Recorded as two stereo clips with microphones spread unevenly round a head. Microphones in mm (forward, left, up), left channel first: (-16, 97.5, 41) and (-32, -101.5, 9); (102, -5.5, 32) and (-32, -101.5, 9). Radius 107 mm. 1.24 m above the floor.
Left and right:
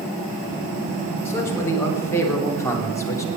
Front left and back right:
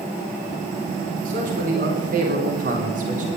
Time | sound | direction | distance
1.2 | a man speaking | 165° left | 4.5 m